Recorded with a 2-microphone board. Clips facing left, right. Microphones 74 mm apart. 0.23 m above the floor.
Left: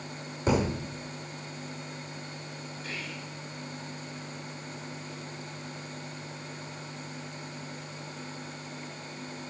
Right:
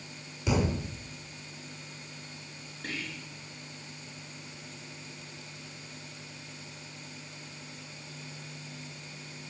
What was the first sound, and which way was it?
A thud, 35° left (ahead or behind).